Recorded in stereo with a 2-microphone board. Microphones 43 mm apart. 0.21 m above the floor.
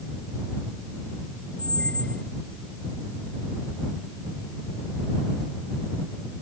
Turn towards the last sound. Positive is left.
turn(degrees=25)  # may be behind; listen again after turning